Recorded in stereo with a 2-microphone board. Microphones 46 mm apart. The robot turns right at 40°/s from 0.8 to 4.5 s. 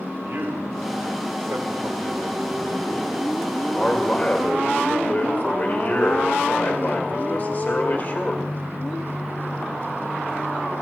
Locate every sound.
0.2 s a man speaking: 105° right, 1.9 m; by 8.4 s 45° left, 1.9 m